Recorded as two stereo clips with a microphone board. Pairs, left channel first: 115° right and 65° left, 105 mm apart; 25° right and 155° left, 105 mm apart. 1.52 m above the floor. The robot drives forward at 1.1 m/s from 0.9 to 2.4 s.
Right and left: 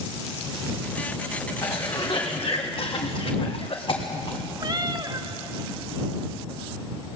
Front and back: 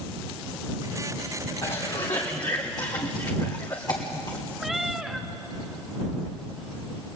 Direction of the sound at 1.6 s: 50° right.